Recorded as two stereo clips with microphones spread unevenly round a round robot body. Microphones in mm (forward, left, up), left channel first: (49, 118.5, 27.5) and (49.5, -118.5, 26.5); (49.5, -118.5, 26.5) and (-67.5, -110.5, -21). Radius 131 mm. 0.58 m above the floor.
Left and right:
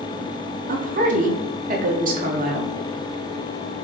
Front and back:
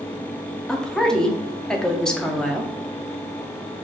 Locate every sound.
0.7 s a woman speaking: 120° right, 0.7 m